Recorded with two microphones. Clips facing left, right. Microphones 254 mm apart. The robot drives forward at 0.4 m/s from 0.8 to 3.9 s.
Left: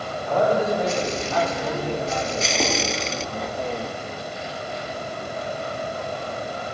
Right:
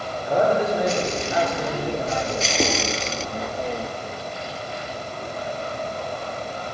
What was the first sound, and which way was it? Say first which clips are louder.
A man speaking: even; 15° right (ahead or behind).